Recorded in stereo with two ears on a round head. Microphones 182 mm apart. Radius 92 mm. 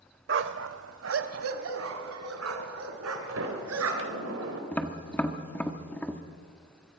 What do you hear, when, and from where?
0.3 s a dog barking: 65° right (ahead or behind), 0.7 m; by 4.2 s 85° right, 3.5 m
3.3 s a sliding door: 75° right (ahead or behind), 4 m
4.7 s tapping: 10° left (ahead or behind), 1.4 m